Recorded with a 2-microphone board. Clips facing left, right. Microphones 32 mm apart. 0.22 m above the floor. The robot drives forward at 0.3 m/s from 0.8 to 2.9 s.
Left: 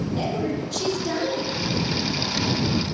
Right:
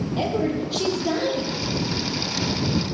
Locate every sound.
0.2 s a woman speaking: 20° right (ahead or behind), 7 m